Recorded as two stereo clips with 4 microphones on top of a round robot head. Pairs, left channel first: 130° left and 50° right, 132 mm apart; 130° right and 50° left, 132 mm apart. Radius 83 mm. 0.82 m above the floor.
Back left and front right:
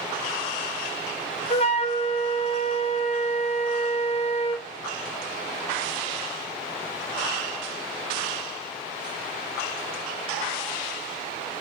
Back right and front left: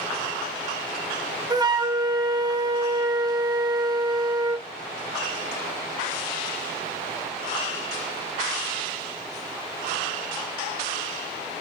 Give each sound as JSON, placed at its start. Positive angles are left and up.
{"t": 1.5, "sound": "a flute", "azimuth_deg": 105, "distance_m": 1.1}